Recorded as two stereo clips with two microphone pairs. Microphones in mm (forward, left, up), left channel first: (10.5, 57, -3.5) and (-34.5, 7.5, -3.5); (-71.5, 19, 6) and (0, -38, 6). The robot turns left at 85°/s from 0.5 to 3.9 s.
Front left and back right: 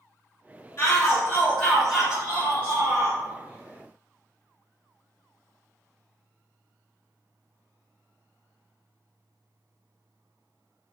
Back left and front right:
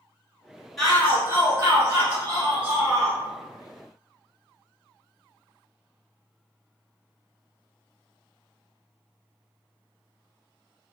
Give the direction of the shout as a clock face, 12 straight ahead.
10 o'clock.